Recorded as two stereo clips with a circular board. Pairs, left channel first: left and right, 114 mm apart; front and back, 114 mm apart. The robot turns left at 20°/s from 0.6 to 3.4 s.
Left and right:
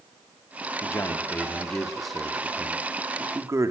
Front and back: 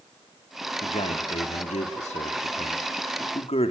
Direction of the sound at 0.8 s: 25° left.